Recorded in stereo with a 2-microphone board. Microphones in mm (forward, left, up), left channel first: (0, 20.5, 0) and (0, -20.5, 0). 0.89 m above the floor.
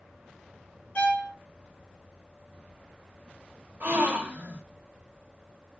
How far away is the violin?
About 0.8 m.